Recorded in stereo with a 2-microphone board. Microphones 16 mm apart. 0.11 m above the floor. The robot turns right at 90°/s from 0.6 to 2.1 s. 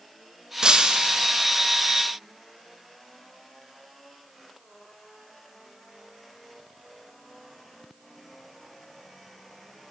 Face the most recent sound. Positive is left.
turn(degrees=5)